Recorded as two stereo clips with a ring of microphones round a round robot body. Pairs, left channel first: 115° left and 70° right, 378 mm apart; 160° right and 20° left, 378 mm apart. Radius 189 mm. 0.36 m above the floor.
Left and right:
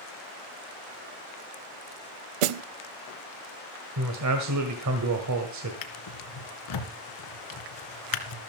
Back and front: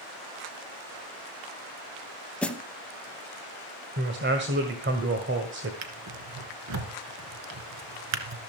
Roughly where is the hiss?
No hiss in this recording.